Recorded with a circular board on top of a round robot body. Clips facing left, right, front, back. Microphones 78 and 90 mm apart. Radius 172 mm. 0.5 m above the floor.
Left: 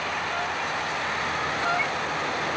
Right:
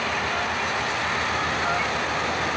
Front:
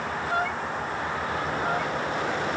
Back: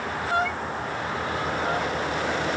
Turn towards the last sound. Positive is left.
No sound to turn to.